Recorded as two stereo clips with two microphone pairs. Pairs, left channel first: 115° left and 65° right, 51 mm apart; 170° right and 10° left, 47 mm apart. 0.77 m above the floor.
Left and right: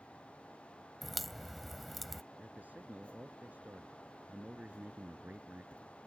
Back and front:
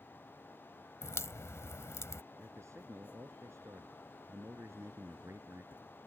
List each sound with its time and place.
1.0 s a crack: 155° right
2.4 s a man speaking: 5° right